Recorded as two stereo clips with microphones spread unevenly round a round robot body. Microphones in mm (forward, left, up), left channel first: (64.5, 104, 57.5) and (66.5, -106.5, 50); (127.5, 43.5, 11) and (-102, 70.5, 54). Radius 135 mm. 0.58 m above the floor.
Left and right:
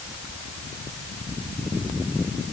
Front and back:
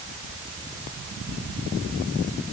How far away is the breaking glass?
I don't hear breaking glass.